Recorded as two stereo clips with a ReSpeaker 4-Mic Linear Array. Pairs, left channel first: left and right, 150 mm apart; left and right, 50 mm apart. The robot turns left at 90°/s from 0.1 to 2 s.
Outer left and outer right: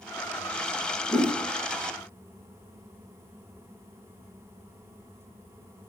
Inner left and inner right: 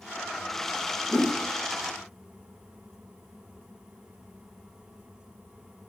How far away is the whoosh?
About 1.1 m.